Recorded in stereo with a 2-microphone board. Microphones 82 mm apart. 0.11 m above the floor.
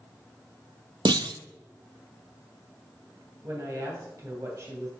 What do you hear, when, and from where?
1.1 s a clunk: 70° right (ahead or behind), 0.5 m
3.4 s a woman speaking: 35° right (ahead or behind), 2.5 m